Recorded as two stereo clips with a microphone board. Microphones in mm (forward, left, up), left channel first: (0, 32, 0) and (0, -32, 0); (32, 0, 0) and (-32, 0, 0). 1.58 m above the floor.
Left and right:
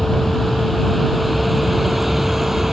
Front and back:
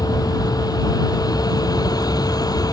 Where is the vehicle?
Straight ahead; by 2.8 s 5° right.